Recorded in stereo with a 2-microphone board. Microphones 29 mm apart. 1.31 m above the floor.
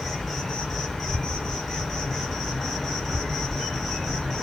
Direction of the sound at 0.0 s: 5° left (ahead or behind).